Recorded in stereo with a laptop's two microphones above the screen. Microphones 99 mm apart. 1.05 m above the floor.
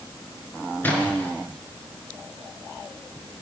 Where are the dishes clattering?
No dishes clattering in this recording.